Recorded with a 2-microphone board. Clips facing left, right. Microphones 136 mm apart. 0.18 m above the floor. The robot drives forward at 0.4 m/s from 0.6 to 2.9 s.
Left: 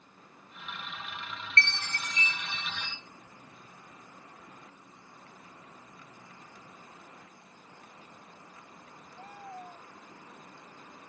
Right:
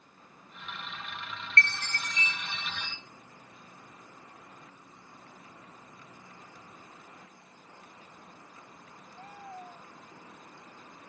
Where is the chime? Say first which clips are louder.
Right 1 dB; 35° left (ahead or behind), 0.5 m; by 3.0 s 20° left (ahead or behind), 0.9 m.